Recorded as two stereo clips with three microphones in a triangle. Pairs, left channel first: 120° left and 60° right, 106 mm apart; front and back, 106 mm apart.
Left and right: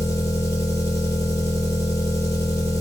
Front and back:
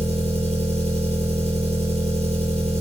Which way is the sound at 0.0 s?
175° right.